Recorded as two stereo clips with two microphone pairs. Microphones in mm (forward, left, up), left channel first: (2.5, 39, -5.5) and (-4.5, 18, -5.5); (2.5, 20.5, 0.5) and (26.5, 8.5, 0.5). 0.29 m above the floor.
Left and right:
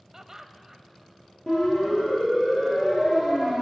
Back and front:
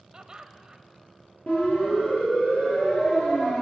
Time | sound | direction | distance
0.1 | laughter | 65° right | 1.1 m
1.5 | a siren | 130° left | 6 m